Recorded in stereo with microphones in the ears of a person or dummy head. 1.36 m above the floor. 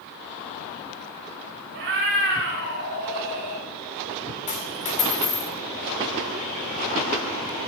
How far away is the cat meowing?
About 2 m.